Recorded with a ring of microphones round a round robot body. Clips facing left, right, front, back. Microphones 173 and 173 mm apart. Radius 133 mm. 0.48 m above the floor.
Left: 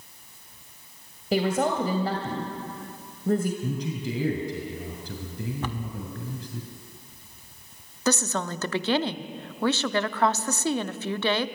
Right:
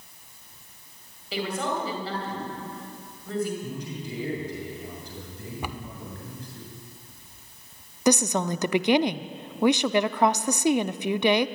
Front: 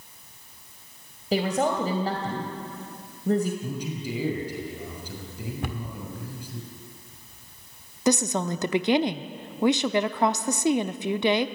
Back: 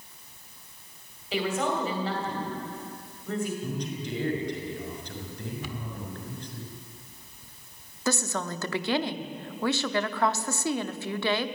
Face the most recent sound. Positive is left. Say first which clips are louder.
# right 4 dB, front 6 dB
turn(degrees=-40)